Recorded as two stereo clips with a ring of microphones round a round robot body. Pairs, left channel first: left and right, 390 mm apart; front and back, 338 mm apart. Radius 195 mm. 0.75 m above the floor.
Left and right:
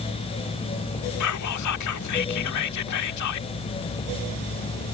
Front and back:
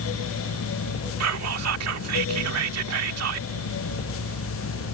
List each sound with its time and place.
1.2 s whispering: 135° left